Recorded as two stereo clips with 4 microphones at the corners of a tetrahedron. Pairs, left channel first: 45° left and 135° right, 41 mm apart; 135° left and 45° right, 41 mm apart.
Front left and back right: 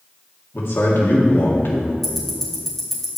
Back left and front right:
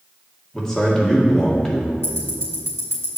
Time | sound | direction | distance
0.5 | a man speaking | 55° left | 2 m
2.0 | ticking | 130° left | 2 m